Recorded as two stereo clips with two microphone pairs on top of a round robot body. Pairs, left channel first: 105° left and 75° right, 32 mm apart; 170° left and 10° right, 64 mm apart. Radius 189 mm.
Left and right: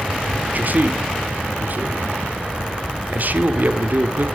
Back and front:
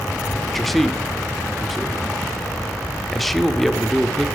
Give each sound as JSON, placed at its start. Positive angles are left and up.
{"t": 0.4, "sound": "a man speaking", "azimuth_deg": -105, "distance_m": 1.6}